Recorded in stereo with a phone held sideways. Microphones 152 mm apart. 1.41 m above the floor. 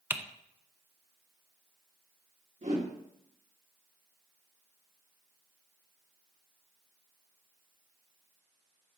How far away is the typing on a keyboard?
About 0.5 m.